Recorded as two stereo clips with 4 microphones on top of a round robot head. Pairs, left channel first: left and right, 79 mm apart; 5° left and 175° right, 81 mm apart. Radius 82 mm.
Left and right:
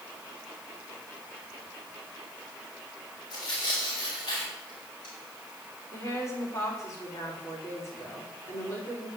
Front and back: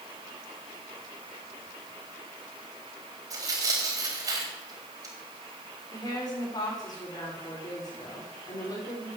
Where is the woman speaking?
40° left, 6 m.